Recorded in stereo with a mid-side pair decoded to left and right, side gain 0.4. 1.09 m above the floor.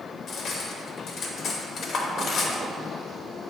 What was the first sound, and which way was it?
Cutlery clinking, 70° left.